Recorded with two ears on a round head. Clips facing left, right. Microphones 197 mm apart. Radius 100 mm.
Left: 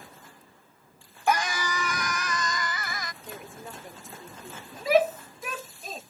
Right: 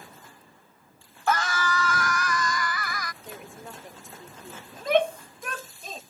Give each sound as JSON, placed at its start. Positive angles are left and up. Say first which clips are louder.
{"t": 1.3, "sound": "a scream", "louder": "even", "side_deg": 15}
{"t": 3.2, "sound": "a woman speaking", "louder": "even", "side_deg": 0}
{"t": 4.7, "sound": "a shout", "louder": "left 1 dB", "side_deg": 5}